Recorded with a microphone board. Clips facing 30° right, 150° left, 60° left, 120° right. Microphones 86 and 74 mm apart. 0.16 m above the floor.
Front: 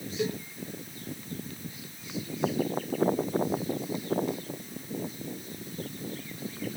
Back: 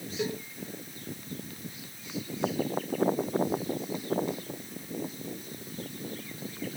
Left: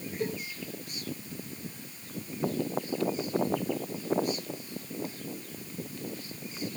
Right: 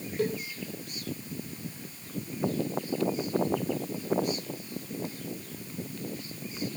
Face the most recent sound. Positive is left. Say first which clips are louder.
# front 2 dB, right 4 dB
turn(degrees=-130)